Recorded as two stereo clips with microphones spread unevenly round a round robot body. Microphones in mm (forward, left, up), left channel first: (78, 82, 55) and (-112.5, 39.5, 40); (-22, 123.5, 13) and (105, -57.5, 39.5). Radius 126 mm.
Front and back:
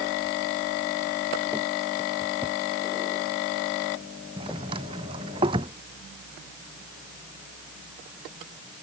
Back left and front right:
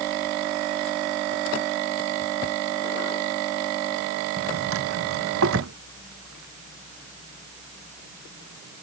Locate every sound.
4.4 s a drawer: 95° right